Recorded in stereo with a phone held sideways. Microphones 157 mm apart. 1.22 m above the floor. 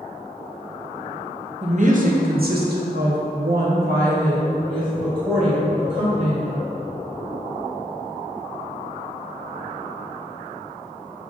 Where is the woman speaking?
45° right (ahead or behind), 1.1 m; by 6.6 s 50° right (ahead or behind), 3.5 m.